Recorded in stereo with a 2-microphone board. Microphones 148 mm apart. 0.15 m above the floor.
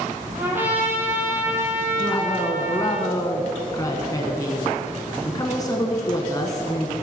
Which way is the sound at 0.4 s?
15° right (ahead or behind).